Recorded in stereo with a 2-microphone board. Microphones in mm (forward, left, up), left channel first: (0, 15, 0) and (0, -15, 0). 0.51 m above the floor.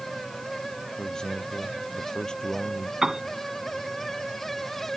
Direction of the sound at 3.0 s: 20° right (ahead or behind).